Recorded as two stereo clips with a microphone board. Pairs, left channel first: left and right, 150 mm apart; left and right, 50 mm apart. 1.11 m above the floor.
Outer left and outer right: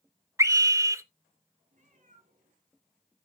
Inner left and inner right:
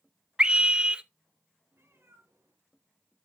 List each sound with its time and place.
0.4 s a scream: 20° right (ahead or behind), 0.8 m
1.7 s a cat meowing: 60° right (ahead or behind), 5.5 m